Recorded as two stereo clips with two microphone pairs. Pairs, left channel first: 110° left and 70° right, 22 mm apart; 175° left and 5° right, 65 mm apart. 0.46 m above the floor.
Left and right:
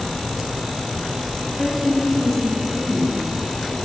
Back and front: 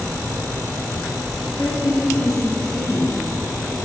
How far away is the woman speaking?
About 6.5 m.